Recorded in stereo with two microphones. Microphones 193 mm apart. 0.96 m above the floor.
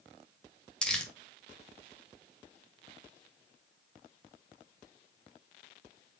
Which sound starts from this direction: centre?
Crumpling, at 0.8 s.